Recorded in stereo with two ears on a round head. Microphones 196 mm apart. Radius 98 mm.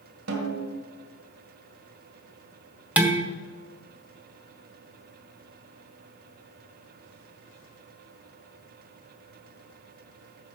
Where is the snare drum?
75° right (ahead or behind), 2 m.